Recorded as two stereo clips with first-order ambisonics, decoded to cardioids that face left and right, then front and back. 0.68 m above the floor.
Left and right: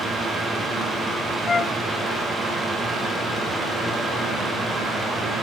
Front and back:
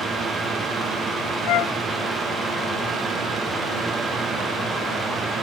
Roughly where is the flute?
Ahead.